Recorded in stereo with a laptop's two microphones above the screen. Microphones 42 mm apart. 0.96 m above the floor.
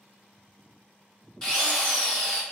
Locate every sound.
1.4 s a drill: 15° left (ahead or behind), 1.0 m